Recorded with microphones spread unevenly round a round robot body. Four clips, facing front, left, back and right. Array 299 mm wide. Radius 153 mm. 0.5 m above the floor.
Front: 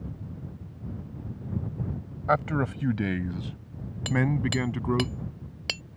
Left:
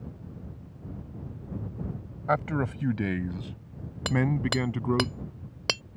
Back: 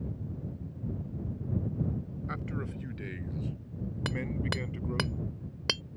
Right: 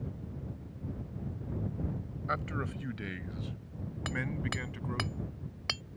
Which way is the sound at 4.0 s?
135° left.